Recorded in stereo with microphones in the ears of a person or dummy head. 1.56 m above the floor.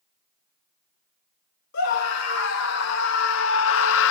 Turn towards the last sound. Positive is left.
turn(degrees=65)  # may be behind; listen again after turning